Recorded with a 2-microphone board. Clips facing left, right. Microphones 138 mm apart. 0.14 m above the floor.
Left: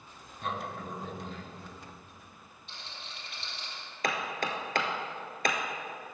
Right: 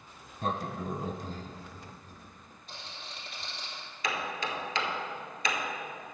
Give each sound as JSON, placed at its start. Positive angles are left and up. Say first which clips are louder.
{"t": 0.4, "sound": "a sliding door", "louder": "right 3 dB", "side_deg": -35, "distance_m": 0.7}
{"t": 2.7, "sound": "a rattle", "louder": "right 2 dB", "side_deg": -40, "distance_m": 3.0}
{"t": 4.0, "sound": "hammering", "louder": "left 2 dB", "side_deg": 55, "distance_m": 1.1}